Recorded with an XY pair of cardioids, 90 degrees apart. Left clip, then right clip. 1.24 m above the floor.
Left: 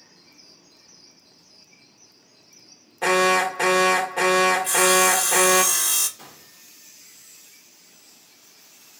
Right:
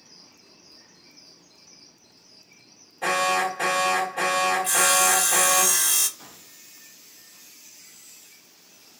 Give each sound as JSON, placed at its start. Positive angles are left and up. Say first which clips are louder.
{"t": 3.0, "sound": "an alarm", "louder": "left 4 dB", "azimuth_deg": 55, "distance_m": 1.2}
{"t": 4.6, "sound": "sawing", "louder": "left 2 dB", "azimuth_deg": 0, "distance_m": 1.1}
{"t": 6.2, "sound": "a gunshot", "louder": "left 1 dB", "azimuth_deg": 60, "distance_m": 1.2}